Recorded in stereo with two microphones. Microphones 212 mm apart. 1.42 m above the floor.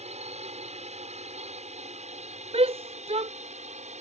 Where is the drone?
30° right (ahead or behind).